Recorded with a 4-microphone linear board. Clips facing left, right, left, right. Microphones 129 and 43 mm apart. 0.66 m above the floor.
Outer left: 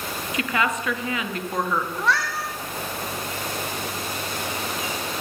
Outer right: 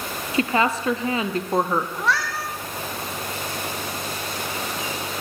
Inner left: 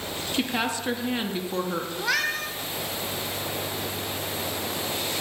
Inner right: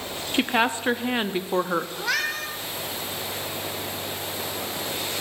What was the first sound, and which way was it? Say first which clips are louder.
A woman speaking: outer right 4 dB, inner right 5 dB; 30° right (ahead or behind).